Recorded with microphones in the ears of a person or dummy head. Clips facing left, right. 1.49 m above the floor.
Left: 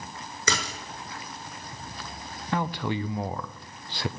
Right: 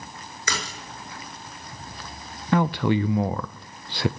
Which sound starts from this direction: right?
A man speaking, at 2.5 s.